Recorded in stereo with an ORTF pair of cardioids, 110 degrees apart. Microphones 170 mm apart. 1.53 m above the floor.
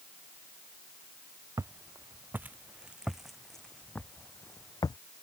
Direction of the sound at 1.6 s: 20° right.